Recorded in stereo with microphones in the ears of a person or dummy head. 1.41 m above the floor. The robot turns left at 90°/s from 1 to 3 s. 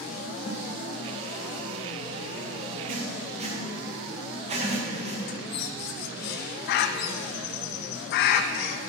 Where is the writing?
45° right (ahead or behind), 1.5 m; by 5.2 s 35° right (ahead or behind), 1.5 m.